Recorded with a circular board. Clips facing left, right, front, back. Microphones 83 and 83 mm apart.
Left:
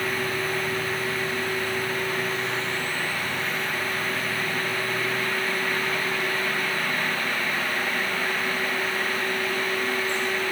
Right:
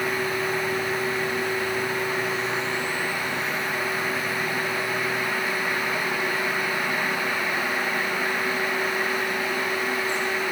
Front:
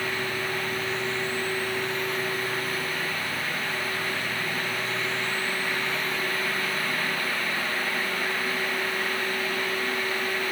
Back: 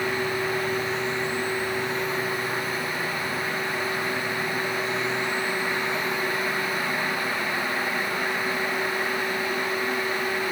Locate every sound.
Only background noise.